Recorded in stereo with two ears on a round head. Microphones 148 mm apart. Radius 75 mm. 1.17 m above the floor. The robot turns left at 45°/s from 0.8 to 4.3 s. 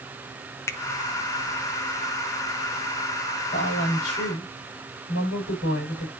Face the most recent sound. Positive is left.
turn(degrees=85)